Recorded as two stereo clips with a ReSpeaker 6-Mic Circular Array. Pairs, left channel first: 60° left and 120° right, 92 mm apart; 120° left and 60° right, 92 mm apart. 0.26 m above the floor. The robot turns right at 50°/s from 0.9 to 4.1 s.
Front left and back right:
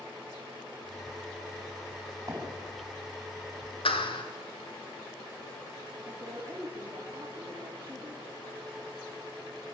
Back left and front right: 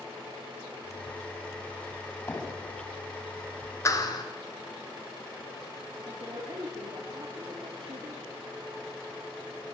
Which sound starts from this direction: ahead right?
A woman speaking, at 6.0 s.